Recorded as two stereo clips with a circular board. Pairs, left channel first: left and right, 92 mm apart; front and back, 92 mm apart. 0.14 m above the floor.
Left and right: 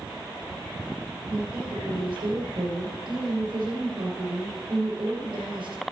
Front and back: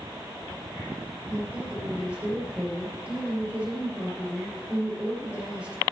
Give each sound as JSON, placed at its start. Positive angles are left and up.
{"t": 1.3, "sound": "a woman speaking", "azimuth_deg": -110, "distance_m": 2.5}